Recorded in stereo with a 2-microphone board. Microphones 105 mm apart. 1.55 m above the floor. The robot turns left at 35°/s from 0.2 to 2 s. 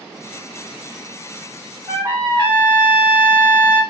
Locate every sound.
1.9 s a trumpet: 35° right (ahead or behind), 1.5 m; by 3.8 s 40° right (ahead or behind), 1.5 m